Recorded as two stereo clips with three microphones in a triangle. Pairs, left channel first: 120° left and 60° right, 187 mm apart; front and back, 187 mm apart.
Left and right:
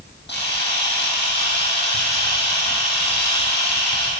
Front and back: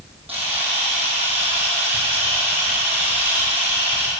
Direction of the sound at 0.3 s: 125° left.